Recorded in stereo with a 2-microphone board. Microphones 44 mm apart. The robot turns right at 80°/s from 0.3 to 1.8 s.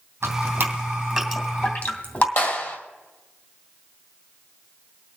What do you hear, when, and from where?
0.2 s dripping: 70° right (ahead or behind), 2.5 m; by 2.3 s 45° left (ahead or behind), 2.5 m
2.4 s a clap: 55° left (ahead or behind), 3 m